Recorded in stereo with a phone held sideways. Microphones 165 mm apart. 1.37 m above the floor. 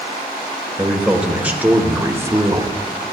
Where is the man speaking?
5° right (ahead or behind), 1.5 m; by 2.8 s 25° right (ahead or behind), 0.6 m.